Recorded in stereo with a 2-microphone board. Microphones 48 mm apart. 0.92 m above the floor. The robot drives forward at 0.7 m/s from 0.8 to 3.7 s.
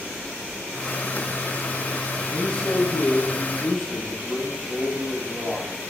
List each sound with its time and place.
2.3 s a man speaking: 20° left (ahead or behind), 0.5 m; by 5.7 s 10° left (ahead or behind), 1.2 m